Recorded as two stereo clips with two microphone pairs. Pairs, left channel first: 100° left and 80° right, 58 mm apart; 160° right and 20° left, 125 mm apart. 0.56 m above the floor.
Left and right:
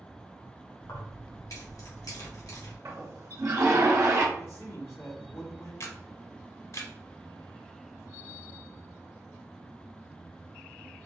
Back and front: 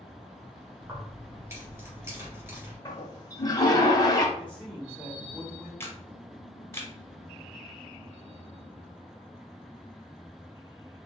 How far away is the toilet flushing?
About 1.0 m.